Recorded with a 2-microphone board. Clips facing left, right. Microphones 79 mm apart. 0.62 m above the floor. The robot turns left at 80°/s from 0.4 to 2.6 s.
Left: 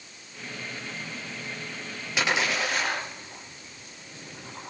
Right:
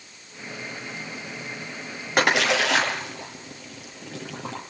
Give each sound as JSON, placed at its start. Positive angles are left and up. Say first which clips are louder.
{"t": 2.2, "sound": "a splash", "louder": "right 6 dB", "side_deg": -45, "distance_m": 7.0}